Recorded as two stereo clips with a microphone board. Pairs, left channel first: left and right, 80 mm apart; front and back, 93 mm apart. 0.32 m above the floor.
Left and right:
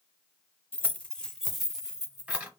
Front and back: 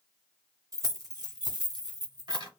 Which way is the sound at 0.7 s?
145° left.